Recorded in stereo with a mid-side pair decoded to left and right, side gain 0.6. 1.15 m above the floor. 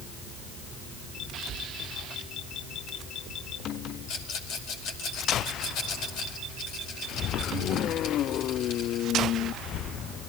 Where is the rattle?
65° left, 5 m.